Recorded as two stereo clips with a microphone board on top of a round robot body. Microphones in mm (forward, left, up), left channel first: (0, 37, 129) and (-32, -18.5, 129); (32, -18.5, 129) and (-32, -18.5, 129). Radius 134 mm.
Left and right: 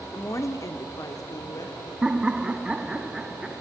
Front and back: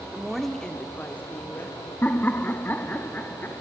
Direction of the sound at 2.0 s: 50° right.